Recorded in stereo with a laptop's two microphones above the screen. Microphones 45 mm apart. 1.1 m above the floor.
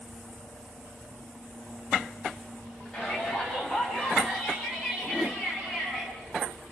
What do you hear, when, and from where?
2.9 s a shout: 10° left (ahead or behind), 7 m; by 6.1 s centre (ahead or behind), 10.5 m
5.1 s a whoosh: 20° left (ahead or behind), 0.7 m